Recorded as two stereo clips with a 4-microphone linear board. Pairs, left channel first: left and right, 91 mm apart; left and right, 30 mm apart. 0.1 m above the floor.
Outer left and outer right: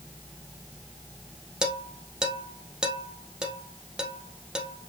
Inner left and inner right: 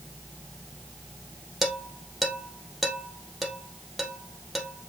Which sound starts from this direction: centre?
Dishes clattering, at 1.6 s.